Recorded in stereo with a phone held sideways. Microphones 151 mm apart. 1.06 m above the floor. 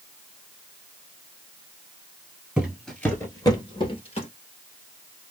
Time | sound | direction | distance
2.6 | footsteps | 5° right (ahead or behind) | 1.1 m